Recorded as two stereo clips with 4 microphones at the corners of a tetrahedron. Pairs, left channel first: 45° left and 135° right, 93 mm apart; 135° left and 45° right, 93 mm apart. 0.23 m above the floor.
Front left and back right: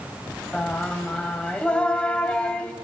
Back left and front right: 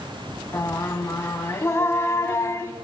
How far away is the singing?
About 0.7 m.